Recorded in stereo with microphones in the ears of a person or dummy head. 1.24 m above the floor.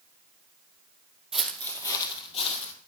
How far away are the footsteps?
About 2 m.